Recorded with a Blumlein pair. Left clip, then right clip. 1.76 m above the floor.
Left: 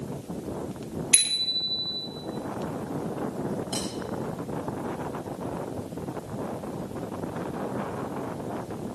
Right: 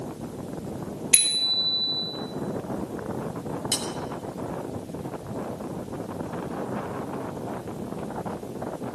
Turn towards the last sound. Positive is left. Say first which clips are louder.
# right 7 dB
turn(degrees=-45)